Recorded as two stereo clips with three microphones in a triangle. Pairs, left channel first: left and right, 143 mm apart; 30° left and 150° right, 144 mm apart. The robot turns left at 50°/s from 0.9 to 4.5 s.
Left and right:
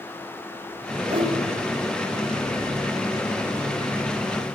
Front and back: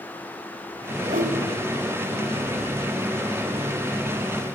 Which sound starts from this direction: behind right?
A whoosh, at 1.1 s.